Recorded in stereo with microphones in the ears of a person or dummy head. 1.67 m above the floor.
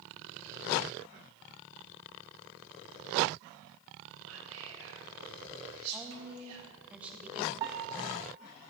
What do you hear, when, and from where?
4.2 s whispering: 80° right, 3 m
5.9 s a woman speaking: 5° right (ahead or behind), 1.3 m
7.6 s a piano: 15° right (ahead or behind), 1.0 m